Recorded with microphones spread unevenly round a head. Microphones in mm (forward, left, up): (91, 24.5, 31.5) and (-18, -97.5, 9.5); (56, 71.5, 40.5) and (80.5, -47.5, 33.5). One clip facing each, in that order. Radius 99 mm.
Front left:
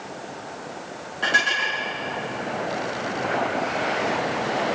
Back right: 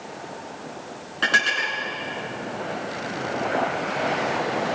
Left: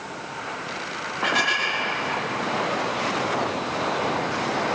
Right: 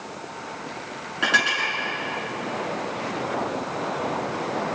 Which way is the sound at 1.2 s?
115° right.